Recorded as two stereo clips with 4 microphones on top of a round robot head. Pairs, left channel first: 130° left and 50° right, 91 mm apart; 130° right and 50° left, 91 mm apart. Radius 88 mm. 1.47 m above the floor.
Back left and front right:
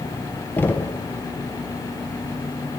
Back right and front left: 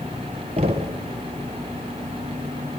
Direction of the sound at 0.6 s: 65° left.